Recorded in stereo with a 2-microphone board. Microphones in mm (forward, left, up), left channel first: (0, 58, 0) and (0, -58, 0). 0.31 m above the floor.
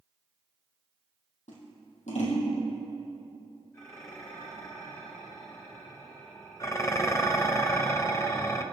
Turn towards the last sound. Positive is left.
turn(degrees=25)  # may be behind; listen again after turning